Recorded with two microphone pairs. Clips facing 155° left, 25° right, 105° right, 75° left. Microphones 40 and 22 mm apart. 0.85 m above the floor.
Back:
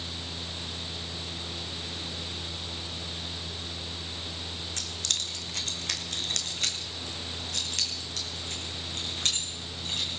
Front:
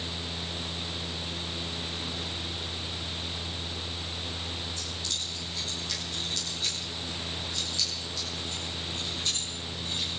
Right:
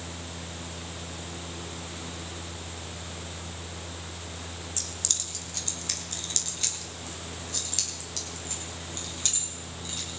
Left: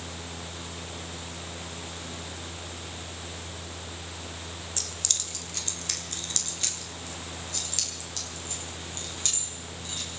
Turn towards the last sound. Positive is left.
turn(degrees=165)